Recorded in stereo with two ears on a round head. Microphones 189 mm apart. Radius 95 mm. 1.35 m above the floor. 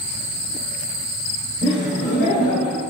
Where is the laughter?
30° left (ahead or behind), 1.3 m; by 2.8 s 60° left (ahead or behind), 0.7 m.